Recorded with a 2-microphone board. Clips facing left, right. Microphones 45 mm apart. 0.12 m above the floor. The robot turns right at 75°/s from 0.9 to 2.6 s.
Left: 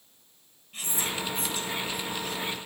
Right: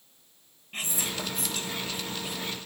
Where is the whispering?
45° right (ahead or behind), 2.0 m; by 2.6 s 5° left (ahead or behind), 2.0 m.